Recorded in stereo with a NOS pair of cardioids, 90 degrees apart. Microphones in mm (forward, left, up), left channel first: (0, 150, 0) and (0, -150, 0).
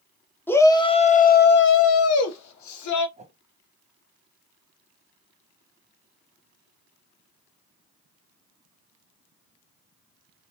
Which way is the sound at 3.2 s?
20° right.